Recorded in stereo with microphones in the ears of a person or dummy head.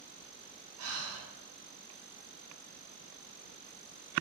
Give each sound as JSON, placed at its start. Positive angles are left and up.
{"t": 0.8, "sound": "breathing", "side_deg": -75, "distance_m": 0.6}